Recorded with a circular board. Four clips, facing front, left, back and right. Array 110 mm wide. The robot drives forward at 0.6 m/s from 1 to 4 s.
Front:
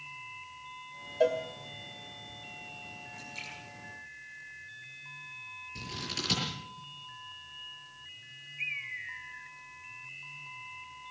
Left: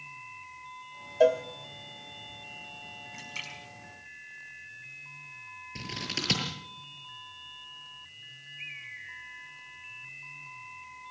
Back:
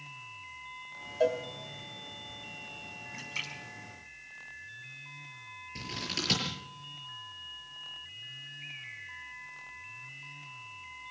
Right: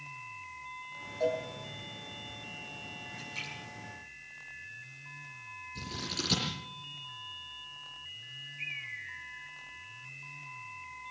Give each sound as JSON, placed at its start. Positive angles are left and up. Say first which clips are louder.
{"t": 1.2, "sound": "a cowbell", "louder": "left 9 dB, front 1 dB", "azimuth_deg": 80, "distance_m": 1.3}
{"t": 3.1, "sound": "a splash", "louder": "left 1 dB, back 2 dB", "azimuth_deg": 150, "distance_m": 5.0}
{"t": 5.8, "sound": "scissors", "louder": "left 2 dB, back 1 dB", "azimuth_deg": 110, "distance_m": 7.5}
{"t": 8.6, "sound": "a bird", "louder": "right 2 dB, front 8 dB", "azimuth_deg": -5, "distance_m": 2.0}